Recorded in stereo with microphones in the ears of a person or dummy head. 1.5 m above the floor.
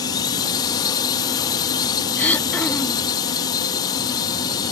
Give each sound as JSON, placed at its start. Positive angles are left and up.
{"t": 0.0, "sound": "a drone", "side_deg": 25}
{"t": 2.2, "sound": "throat clearing", "side_deg": 10}